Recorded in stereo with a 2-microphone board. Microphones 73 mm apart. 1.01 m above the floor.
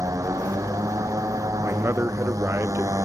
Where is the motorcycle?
50° right (ahead or behind).